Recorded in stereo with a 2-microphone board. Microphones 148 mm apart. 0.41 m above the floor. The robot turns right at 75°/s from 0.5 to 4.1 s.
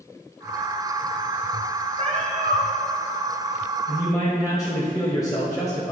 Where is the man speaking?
10° left (ahead or behind), 1.6 m; by 5.9 s 25° left (ahead or behind), 1.6 m.